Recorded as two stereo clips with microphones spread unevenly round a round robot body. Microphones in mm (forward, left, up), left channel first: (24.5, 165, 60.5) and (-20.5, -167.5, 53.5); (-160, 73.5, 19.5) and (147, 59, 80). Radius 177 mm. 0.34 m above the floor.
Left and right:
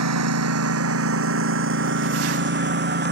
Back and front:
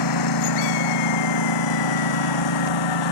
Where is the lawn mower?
145° right; by 3.1 s 160° right.